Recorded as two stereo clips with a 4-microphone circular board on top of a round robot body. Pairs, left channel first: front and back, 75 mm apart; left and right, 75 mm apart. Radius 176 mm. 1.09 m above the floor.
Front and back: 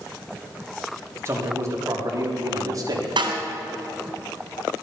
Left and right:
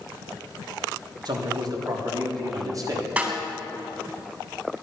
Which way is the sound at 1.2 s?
125° right.